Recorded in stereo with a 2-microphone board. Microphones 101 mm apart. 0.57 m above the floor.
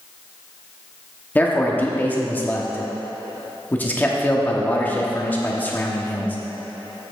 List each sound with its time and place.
1.4 s a man speaking: 15° left (ahead or behind), 1.0 m